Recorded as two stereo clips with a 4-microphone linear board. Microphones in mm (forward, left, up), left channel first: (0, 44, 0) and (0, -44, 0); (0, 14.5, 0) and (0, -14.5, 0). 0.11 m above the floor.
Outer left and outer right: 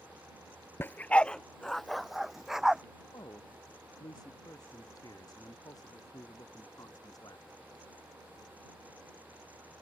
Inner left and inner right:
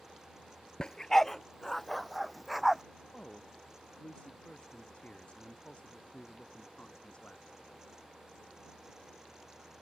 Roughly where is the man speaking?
Left.